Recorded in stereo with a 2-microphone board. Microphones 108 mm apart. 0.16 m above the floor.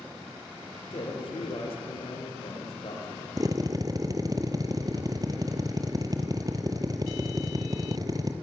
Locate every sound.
0.9 s a man speaking: 65° left (ahead or behind), 4 m
3.4 s a drill: 35° right (ahead or behind), 1.8 m